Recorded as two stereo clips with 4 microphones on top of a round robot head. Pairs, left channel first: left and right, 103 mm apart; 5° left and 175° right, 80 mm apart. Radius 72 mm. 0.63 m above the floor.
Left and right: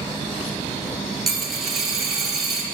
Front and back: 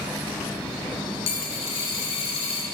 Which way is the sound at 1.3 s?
5° right.